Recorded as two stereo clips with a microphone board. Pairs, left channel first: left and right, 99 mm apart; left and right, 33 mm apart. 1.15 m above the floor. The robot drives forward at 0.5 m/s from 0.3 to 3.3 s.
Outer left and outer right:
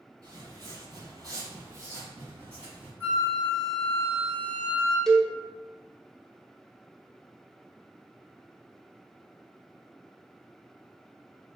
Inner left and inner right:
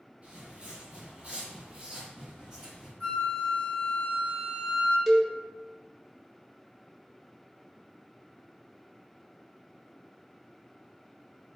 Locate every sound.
0.2 s footsteps: 35° right (ahead or behind), 1.6 m; by 2.9 s 10° right (ahead or behind), 2 m
3.0 s a flute: 30° left (ahead or behind), 1.8 m
5.1 s a cowbell: centre (ahead or behind), 0.5 m